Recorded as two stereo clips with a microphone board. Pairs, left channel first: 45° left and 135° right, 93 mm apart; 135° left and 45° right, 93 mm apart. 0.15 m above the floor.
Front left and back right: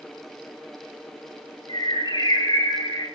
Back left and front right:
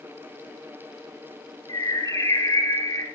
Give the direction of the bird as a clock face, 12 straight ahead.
9 o'clock.